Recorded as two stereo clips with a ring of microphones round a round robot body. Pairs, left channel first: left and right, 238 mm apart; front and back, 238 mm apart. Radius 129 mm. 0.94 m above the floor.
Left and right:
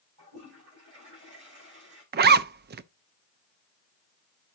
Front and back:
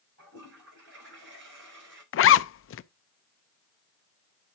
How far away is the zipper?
About 0.5 m.